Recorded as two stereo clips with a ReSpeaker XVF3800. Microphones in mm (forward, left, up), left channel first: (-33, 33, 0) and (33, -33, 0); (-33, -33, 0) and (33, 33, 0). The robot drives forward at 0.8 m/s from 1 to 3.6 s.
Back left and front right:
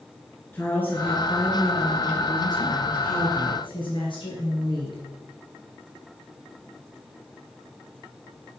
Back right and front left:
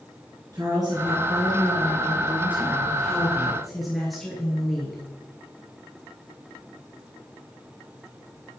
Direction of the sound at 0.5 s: 70° left.